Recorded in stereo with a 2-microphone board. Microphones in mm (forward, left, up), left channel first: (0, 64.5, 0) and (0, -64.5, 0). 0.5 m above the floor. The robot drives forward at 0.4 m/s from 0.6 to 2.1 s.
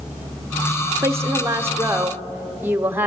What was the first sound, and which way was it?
A woman speaking, 20° right (ahead or behind).